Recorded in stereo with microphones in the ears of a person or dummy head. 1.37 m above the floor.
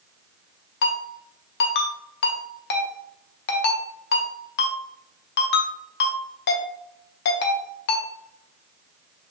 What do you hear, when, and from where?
0.8 s a ringtone: 65° left (ahead or behind), 0.8 m